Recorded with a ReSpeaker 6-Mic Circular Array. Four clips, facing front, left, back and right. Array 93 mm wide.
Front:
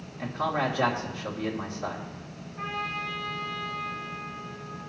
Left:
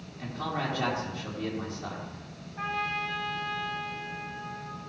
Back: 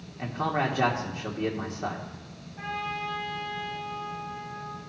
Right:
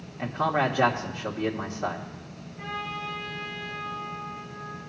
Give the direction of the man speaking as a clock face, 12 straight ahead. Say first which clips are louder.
Right 8 dB, even; 4 o'clock.